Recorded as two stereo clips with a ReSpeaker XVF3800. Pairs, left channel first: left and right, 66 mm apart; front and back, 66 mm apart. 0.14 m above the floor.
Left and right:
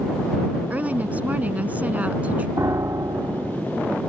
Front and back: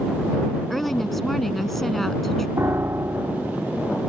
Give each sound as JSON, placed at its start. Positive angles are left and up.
{"t": 0.7, "sound": "a woman speaking", "azimuth_deg": -80}
{"t": 2.6, "sound": "a piano", "azimuth_deg": -130}